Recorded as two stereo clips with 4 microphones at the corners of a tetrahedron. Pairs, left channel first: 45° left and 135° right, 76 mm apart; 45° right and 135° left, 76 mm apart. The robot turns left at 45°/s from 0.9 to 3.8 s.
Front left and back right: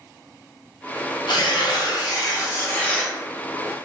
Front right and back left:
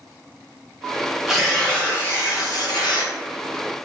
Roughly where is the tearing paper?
Ahead left.